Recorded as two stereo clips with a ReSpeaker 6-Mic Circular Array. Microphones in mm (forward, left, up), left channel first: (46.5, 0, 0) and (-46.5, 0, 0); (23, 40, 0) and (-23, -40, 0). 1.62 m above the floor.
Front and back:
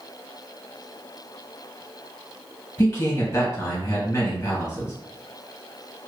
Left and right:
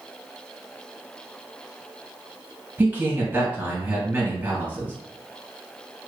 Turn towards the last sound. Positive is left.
turn(degrees=-55)